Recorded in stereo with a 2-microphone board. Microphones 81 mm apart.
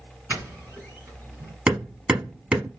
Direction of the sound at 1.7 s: 10° right (ahead or behind).